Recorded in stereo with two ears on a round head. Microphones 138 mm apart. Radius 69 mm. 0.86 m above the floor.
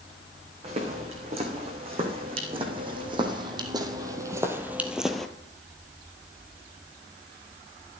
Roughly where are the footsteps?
Right.